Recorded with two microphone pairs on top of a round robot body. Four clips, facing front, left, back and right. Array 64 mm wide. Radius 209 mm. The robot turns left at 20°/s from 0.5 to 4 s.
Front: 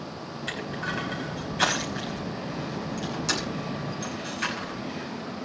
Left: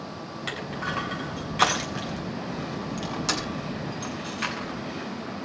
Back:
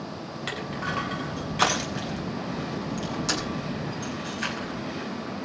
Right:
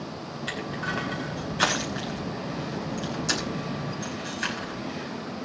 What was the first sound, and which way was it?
Crushing, 135° left.